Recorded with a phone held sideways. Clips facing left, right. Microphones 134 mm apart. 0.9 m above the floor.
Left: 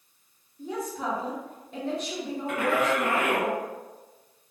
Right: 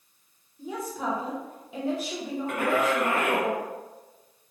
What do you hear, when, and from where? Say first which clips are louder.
0.6 s a woman speaking: even; 5° right (ahead or behind), 0.9 m
2.5 s a man speaking: even; 50° right (ahead or behind), 1.2 m